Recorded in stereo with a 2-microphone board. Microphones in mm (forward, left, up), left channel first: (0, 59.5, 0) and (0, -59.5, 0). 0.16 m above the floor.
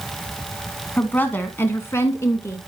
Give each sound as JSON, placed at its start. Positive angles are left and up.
{"t": 1.0, "sound": "a woman speaking", "side_deg": 15, "distance_m": 1.2}